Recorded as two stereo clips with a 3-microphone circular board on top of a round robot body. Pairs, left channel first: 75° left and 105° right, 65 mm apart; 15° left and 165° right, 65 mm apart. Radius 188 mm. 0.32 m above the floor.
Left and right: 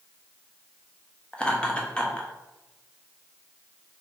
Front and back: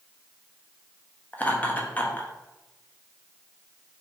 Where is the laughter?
20° left, 1.4 m.